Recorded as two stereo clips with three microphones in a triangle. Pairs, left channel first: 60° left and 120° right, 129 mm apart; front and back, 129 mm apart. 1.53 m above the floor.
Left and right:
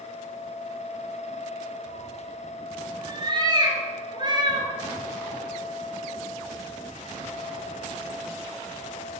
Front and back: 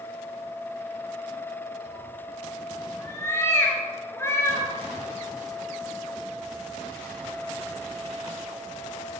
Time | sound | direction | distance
1.9 | a cat meowing | 70° right | 3 m